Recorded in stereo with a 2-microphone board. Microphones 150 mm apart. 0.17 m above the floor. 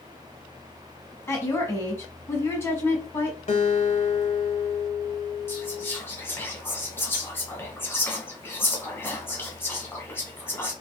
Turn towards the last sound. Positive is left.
turn(degrees=15)  # may be behind; listen again after turning